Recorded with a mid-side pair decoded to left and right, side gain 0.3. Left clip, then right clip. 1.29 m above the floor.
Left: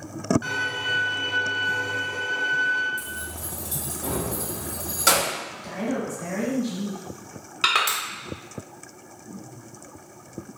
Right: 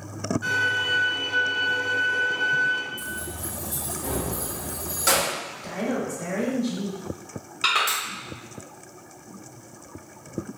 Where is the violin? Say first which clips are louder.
Right 3 dB; 60° left, 1.6 m.